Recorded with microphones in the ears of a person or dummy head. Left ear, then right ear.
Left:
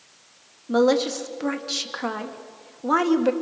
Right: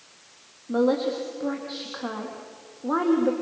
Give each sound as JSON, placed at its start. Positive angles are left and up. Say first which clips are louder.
{"t": 0.7, "sound": "a woman speaking", "louder": "left 3 dB", "side_deg": 65, "distance_m": 2.5}